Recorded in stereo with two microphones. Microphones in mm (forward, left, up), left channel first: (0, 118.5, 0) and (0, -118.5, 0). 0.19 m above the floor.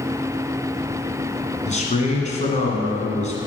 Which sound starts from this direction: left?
A man speaking, at 1.7 s.